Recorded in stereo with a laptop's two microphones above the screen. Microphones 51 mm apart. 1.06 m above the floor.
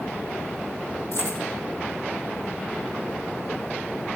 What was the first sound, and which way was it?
Keys jangling, 80° left.